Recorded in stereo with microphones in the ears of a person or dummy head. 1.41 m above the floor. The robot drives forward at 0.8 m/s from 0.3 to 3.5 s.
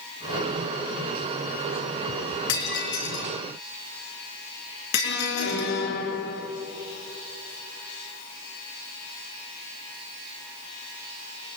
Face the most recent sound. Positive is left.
turn(degrees=60)  # may be behind; listen again after turning